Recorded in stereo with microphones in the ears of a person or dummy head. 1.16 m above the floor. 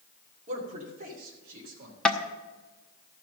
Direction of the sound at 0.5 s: 40° right (ahead or behind).